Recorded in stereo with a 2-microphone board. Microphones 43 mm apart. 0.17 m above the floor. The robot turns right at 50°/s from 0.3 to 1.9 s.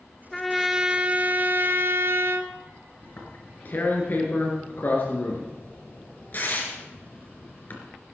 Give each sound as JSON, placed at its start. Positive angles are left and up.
{"t": 0.3, "sound": "a trumpet", "azimuth_deg": 170, "distance_m": 1.0}
{"t": 3.0, "sound": "tearing paper", "side_deg": 45, "distance_m": 3.0}